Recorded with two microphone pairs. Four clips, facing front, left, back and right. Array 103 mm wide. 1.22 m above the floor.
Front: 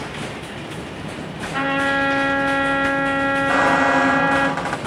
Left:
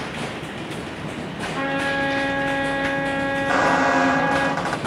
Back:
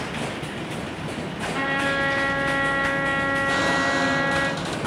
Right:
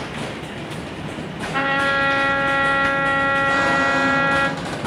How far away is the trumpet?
About 4 m.